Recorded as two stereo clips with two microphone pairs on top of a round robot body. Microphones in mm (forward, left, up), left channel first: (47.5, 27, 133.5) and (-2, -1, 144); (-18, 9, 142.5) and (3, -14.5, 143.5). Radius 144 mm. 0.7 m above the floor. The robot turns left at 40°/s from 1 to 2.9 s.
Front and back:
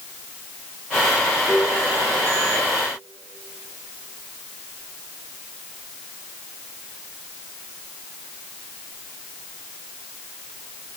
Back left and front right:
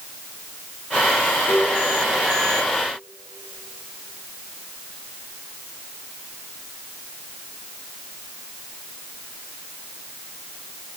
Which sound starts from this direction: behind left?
A piano, at 1.5 s.